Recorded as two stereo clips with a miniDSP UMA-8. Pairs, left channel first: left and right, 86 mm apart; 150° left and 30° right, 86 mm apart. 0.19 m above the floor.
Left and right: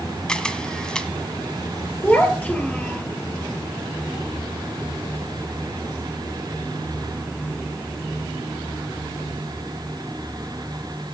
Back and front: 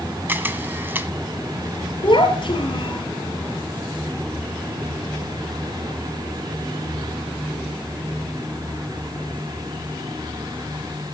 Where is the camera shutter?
15° left, 1.2 m.